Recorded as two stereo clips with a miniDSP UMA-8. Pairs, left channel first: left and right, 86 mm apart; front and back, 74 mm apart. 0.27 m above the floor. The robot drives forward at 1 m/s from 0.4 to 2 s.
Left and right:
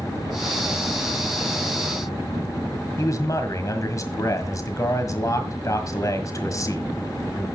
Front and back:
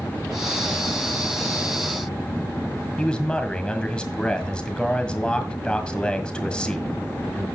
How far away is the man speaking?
About 1.6 m.